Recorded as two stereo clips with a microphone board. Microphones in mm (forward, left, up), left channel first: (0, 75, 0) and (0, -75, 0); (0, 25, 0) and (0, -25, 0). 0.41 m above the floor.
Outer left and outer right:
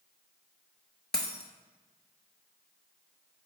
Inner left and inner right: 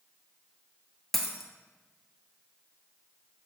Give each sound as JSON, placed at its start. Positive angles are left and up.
{"t": 1.1, "sound": "a dropped coin", "side_deg": 5, "distance_m": 0.7}